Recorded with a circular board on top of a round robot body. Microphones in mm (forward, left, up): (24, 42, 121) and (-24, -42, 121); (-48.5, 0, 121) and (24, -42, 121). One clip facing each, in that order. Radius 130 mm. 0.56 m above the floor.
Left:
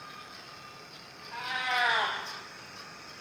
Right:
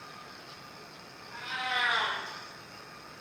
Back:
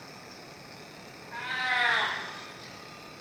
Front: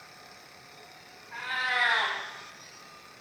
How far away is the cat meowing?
About 0.5 m.